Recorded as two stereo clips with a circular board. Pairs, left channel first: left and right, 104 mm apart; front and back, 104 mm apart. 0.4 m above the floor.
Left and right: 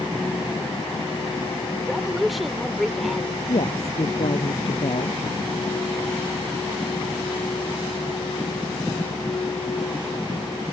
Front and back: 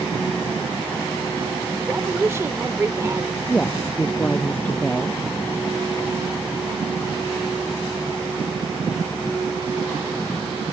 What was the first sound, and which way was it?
A woman speaking, 175° right.